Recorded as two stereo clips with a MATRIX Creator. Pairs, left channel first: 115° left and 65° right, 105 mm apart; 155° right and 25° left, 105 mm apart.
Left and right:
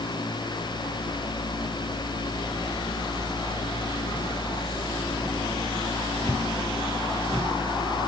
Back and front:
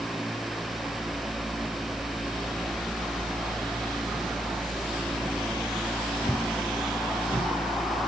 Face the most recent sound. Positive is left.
No sound to turn to.